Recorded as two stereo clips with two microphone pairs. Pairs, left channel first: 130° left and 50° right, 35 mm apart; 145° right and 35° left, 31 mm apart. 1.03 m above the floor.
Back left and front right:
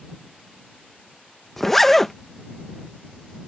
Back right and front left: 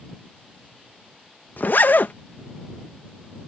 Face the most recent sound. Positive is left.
turn(degrees=-145)